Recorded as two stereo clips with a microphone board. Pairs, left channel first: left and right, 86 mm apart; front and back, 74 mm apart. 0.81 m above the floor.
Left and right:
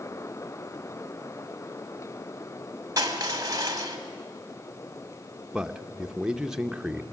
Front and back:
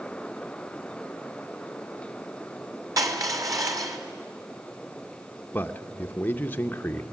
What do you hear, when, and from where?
3.0 s crushing: 140° right, 2.5 m
5.5 s a man speaking: 15° right, 0.8 m